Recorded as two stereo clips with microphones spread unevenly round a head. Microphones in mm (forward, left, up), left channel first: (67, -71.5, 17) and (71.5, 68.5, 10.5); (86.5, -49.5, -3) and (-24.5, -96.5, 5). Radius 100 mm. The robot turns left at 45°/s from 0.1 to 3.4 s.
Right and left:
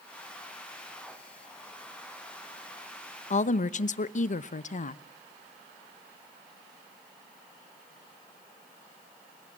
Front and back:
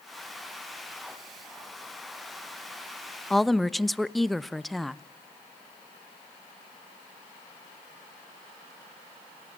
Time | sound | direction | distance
3.3 | a woman speaking | 60° right | 0.8 m